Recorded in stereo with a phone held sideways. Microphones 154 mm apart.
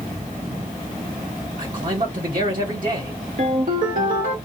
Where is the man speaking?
70° right (ahead or behind), 1.6 m.